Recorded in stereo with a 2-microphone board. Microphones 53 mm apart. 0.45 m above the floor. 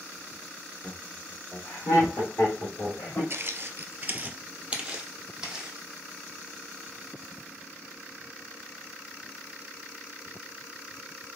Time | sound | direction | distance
0.8 | laughter | 25° left (ahead or behind) | 1.3 m
3.3 | footsteps | 45° right (ahead or behind) | 0.5 m